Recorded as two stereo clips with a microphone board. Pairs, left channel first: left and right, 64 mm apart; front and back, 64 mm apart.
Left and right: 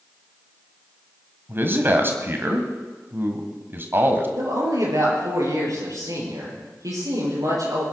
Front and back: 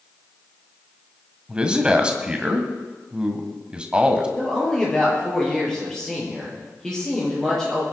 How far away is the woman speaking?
About 7 m.